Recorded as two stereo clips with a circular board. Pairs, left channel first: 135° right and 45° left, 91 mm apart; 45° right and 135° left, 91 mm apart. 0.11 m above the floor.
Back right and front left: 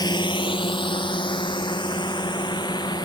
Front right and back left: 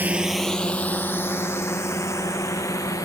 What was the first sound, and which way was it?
A drone, 160° right.